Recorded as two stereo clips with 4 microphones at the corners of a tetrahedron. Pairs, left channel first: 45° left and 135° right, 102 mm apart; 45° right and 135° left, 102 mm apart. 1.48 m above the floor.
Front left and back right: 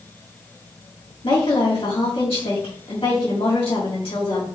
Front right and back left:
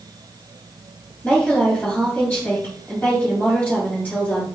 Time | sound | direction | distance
1.2 | a woman speaking | 30° left | 2.5 m